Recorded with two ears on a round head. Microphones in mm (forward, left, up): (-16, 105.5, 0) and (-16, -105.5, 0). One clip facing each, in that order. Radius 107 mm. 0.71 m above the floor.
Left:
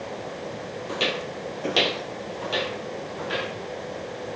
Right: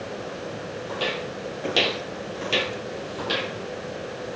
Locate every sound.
0.9 s footsteps: 30° left (ahead or behind), 1.5 m; by 3.5 s 60° right (ahead or behind), 1.9 m